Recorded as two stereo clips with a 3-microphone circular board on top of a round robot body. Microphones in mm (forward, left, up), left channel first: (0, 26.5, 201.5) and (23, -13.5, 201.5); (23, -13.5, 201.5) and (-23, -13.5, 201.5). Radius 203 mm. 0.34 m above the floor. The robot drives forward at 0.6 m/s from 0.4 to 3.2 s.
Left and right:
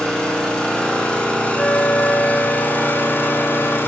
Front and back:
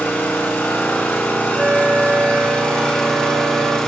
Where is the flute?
130° left, 1.6 m; by 3.8 s 155° left, 2 m.